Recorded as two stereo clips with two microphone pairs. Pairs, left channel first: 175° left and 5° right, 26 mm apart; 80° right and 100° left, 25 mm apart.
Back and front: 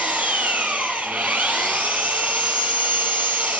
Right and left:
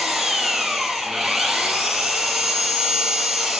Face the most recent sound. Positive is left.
turn(degrees=15)